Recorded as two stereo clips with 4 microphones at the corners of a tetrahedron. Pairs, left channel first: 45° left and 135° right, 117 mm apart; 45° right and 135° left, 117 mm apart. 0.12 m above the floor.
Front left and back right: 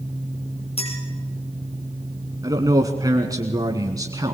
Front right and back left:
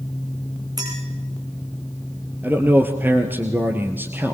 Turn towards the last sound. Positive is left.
turn(degrees=-165)